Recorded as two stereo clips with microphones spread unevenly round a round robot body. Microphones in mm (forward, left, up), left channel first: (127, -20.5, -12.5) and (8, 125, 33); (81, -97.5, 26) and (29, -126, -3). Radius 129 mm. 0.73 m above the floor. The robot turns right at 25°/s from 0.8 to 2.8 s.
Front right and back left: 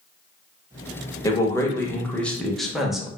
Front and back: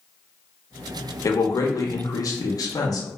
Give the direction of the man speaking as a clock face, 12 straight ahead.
1 o'clock.